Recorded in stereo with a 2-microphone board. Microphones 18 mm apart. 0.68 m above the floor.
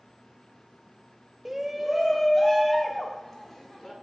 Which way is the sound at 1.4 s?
15° right (ahead or behind).